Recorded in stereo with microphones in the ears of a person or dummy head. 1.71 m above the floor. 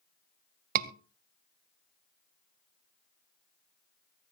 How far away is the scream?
About 1.5 m.